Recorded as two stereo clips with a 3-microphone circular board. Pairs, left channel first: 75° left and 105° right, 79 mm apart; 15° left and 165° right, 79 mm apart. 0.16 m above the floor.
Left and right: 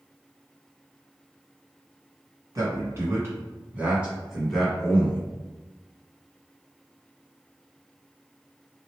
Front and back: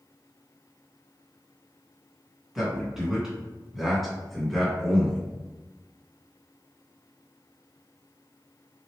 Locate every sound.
2.5 s a man speaking: 85° right, 1.7 m; by 5.2 s 100° left, 1.2 m